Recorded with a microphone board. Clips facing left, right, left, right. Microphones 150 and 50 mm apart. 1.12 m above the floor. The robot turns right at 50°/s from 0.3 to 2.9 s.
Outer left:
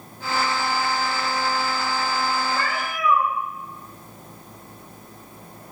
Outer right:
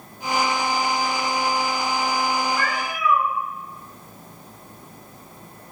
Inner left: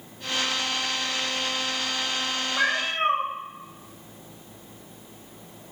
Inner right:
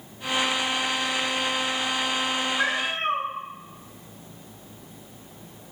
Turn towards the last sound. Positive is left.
turn(degrees=50)  # may be behind; listen again after turning